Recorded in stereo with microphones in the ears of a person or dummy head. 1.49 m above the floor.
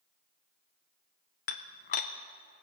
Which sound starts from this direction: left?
Dishes clattering, at 1.5 s.